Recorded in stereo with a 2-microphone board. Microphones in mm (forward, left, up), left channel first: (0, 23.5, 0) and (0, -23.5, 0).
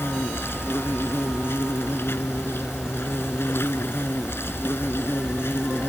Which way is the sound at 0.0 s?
55° left (ahead or behind).